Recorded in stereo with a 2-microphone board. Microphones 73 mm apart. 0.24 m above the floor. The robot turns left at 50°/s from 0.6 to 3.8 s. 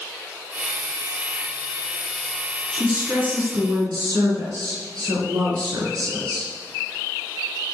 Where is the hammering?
I don't hear hammering.